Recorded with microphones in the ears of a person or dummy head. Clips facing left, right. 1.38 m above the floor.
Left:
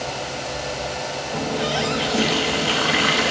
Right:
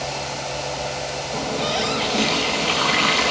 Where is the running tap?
5° left (ahead or behind), 1.2 m.